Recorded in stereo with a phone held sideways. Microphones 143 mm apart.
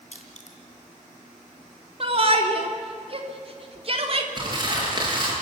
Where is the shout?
45° right (ahead or behind), 3 m.